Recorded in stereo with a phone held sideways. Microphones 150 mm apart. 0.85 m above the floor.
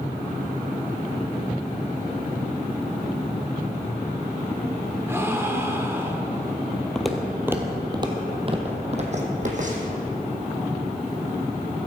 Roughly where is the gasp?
Centre.